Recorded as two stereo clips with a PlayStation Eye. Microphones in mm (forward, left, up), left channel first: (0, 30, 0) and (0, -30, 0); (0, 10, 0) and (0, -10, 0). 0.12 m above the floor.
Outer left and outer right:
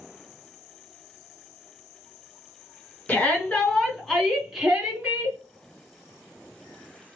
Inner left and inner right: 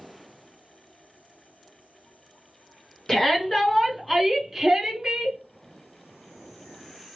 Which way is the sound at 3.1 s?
25° left (ahead or behind).